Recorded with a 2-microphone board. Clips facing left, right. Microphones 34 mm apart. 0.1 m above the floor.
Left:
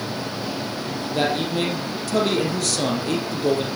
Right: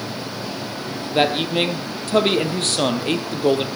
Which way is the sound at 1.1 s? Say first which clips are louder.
Right 4 dB; 50° right (ahead or behind).